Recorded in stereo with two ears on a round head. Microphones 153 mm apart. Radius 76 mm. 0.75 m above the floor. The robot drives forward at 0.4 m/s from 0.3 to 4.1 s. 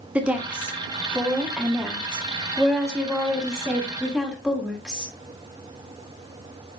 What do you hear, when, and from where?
0.1 s a woman speaking: 5° right (ahead or behind), 1.4 m